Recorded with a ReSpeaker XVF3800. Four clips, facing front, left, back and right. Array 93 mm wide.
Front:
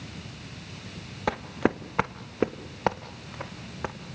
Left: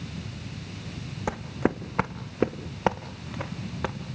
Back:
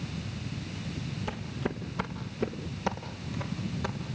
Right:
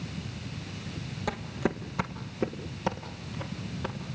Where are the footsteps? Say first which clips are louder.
Left 4 dB, front 11 dB; 20° left, 1.3 m; by 4.0 s 60° left, 3 m.